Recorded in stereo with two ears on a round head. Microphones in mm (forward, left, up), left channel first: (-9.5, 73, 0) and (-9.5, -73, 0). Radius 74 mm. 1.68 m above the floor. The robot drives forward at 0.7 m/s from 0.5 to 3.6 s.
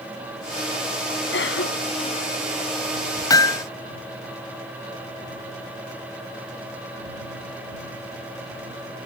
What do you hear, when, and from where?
1.3 s a cough: 85° left
3.3 s hammering: 25° left (ahead or behind)